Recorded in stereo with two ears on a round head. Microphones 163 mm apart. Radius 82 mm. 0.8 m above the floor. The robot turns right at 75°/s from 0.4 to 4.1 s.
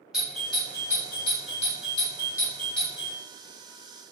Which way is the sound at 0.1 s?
5° right (ahead or behind).